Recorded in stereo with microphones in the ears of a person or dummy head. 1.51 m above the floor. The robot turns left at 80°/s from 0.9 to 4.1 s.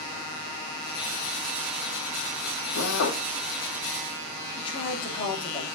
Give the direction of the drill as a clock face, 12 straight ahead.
8 o'clock.